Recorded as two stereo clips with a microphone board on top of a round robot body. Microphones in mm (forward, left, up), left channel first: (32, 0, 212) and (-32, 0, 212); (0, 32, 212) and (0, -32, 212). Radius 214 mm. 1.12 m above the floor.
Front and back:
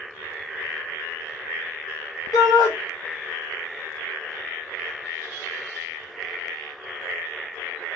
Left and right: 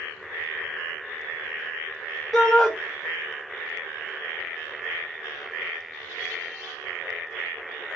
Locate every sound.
2.3 s a shout: 5° left, 0.5 m